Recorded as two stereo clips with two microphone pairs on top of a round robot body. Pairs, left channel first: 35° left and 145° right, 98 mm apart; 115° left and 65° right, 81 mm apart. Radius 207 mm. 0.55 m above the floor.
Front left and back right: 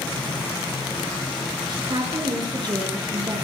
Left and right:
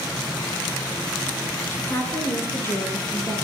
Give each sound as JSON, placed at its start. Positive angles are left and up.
{"t": 1.7, "sound": "a woman speaking", "azimuth_deg": 170, "distance_m": 9.0}